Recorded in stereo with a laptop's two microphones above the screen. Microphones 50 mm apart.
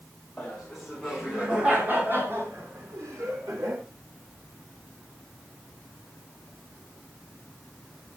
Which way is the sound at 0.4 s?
10° left (ahead or behind).